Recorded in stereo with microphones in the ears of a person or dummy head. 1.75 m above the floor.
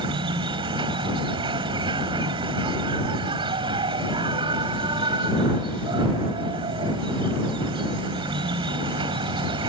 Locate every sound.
0.0 s an insect: 25° right (ahead or behind)